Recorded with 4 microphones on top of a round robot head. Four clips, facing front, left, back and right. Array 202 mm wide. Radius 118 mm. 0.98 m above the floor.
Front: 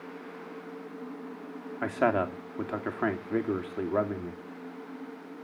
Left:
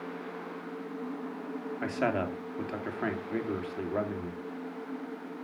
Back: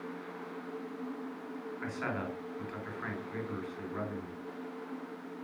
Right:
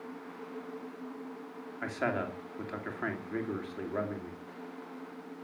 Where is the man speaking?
15° left, 2.5 m.